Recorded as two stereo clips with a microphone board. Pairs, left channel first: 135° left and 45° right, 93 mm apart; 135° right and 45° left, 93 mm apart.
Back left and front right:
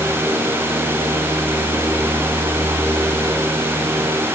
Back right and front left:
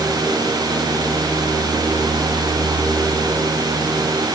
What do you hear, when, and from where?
Only background noise.